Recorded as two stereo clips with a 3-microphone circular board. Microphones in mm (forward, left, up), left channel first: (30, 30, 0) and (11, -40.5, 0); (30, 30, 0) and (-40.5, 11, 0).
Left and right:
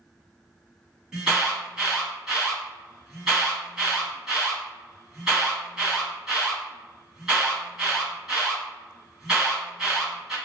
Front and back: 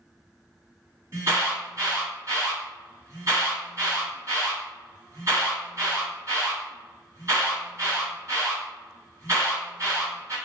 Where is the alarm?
175° left, 1.9 m.